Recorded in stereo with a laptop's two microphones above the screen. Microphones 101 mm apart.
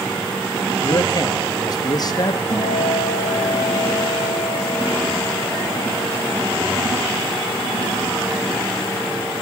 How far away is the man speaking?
About 1.0 m.